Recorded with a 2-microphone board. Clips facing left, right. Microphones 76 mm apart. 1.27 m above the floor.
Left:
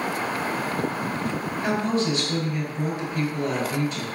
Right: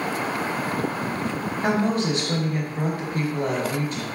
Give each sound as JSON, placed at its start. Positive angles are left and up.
{"t": 1.6, "sound": "a woman speaking", "side_deg": -45, "distance_m": 1.3}